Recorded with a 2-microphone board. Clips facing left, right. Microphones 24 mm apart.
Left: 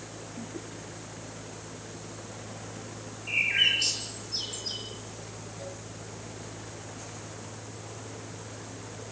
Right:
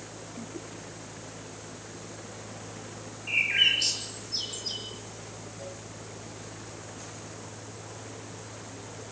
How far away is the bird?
About 7.5 m.